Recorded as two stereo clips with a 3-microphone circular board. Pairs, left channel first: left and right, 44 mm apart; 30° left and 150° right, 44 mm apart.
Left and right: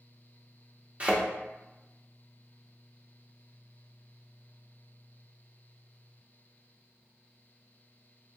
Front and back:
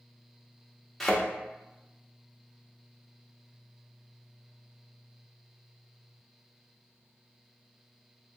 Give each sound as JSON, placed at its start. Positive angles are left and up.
{"t": 1.0, "sound": "a thud", "azimuth_deg": -55, "distance_m": 0.7}